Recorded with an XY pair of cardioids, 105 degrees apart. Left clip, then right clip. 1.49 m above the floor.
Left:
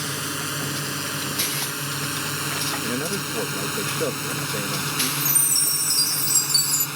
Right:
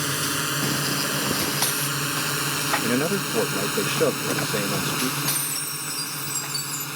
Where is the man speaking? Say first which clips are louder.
Right 3 dB; 35° right.